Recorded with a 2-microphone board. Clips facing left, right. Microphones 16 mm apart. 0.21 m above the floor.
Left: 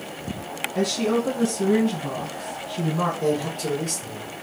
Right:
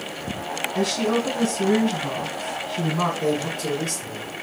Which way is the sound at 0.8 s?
25° right (ahead or behind).